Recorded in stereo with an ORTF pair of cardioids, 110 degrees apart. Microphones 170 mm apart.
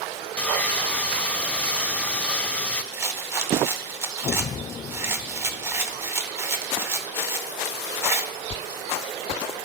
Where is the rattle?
15° right, 0.8 m.